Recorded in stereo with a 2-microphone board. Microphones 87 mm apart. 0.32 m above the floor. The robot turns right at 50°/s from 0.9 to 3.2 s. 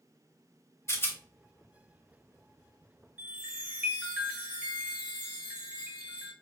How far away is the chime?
About 1.2 m.